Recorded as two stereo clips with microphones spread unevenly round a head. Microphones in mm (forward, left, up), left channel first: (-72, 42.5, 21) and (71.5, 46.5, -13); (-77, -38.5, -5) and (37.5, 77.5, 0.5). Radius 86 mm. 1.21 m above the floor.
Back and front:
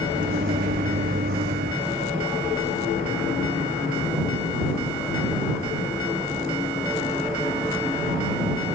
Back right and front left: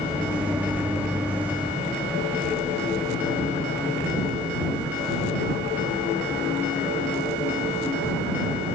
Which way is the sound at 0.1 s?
35° right.